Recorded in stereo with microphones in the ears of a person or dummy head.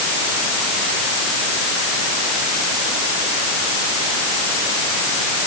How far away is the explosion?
No explosion in this recording.